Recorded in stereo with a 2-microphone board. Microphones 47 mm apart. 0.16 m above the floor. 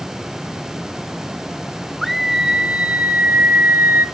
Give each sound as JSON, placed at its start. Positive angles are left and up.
{"t": 2.0, "sound": "a scream", "side_deg": 0, "distance_m": 1.0}